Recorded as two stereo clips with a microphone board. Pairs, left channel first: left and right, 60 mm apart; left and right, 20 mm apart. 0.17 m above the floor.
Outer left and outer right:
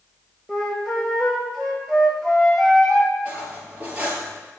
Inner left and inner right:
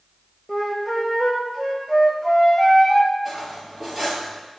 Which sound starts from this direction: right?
Cutlery clinking, at 3.2 s.